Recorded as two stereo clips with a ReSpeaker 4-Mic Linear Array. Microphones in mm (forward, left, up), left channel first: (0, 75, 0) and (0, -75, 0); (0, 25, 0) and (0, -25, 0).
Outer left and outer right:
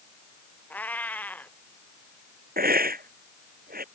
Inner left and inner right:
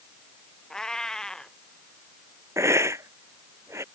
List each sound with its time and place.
0.7 s a cat meowing: 10° left (ahead or behind)
2.6 s a hiss: 80° right